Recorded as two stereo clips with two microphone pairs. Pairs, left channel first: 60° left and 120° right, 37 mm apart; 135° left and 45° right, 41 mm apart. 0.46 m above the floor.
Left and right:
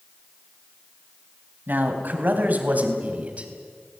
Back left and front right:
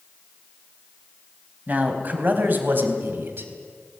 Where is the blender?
No blender in this recording.